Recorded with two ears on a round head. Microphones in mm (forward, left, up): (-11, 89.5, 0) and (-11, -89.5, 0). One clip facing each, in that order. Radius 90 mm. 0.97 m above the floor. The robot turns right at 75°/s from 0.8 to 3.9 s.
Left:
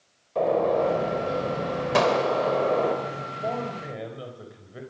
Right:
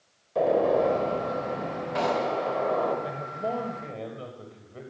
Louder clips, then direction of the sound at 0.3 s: Even; 5° right.